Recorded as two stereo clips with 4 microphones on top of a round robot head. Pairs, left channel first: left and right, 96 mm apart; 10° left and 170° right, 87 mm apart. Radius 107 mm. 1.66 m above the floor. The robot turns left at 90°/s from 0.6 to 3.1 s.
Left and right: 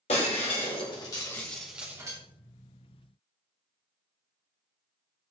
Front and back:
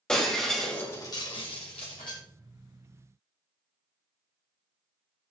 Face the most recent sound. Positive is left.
turn(degrees=-135)